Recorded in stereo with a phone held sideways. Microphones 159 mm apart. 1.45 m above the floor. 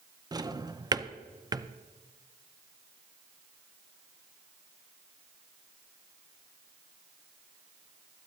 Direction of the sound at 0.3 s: 25° right (ahead or behind).